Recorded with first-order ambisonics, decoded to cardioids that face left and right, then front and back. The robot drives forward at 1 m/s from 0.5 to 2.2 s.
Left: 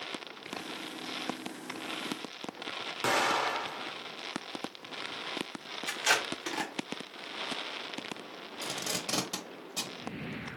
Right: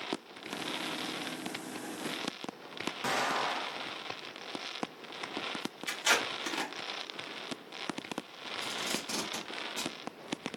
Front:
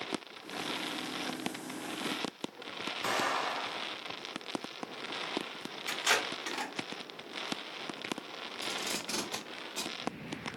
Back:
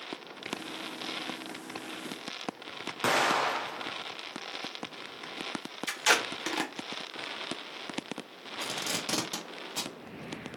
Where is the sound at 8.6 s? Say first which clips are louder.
Left 1 dB, back 3 dB; 140° left, 1.0 m.